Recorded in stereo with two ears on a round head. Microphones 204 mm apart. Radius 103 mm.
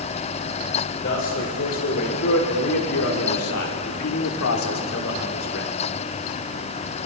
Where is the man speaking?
50° left (ahead or behind), 4 m; by 5.7 s 55° left (ahead or behind), 3.5 m.